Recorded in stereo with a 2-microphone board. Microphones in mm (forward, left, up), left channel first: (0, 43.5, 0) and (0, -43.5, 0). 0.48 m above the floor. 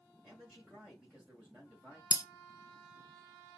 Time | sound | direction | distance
0.2 | a man speaking | 10° right (ahead or behind) | 2.0 m
2.1 | breaking glass | 45° left (ahead or behind) | 0.5 m